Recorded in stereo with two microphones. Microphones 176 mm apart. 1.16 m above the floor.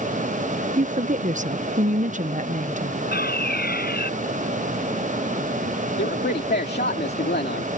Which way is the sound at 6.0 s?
85° left.